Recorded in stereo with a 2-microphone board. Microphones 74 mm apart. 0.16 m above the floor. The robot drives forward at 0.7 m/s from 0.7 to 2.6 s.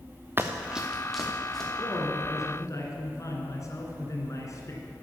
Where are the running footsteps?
30° right (ahead or behind), 1.0 m; by 1.7 s 5° left (ahead or behind), 3 m.